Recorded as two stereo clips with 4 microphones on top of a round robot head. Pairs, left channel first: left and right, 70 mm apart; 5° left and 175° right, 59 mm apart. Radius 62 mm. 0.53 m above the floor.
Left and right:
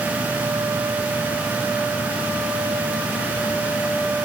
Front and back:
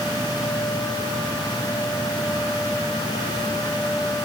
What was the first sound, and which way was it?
Only background noise.